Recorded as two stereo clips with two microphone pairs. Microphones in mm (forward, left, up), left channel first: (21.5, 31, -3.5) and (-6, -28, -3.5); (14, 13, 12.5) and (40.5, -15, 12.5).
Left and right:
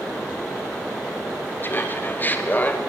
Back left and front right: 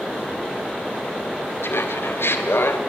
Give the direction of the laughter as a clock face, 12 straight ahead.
8 o'clock.